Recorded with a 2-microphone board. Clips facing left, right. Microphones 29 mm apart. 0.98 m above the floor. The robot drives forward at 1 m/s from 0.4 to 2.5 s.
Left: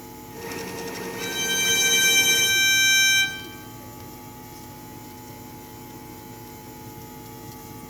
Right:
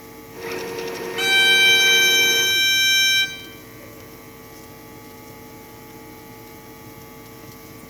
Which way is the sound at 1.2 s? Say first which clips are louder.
Right 11 dB; 80° right.